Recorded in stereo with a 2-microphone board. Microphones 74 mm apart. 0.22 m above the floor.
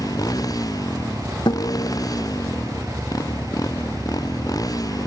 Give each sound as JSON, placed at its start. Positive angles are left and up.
{"t": 0.0, "sound": "a motorcycle", "side_deg": 55}
{"t": 1.5, "sound": "a guitar", "side_deg": 85}